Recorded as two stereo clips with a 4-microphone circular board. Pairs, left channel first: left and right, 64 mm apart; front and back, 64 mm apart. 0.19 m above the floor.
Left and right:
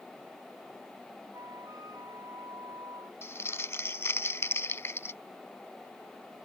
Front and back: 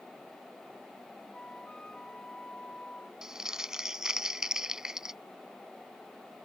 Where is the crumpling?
105° left.